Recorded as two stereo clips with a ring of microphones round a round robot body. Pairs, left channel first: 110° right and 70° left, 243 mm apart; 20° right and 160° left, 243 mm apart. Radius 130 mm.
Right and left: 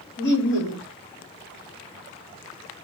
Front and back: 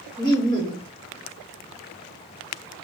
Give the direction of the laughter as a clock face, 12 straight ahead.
3 o'clock.